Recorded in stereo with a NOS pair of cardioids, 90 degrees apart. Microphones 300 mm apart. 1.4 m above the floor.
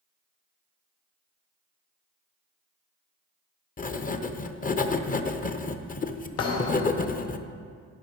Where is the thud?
60° left, 2.5 m.